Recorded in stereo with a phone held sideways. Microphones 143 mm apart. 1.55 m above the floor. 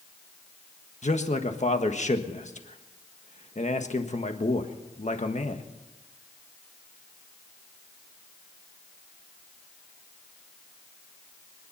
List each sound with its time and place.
1.0 s a man speaking: 50° left (ahead or behind), 1.4 m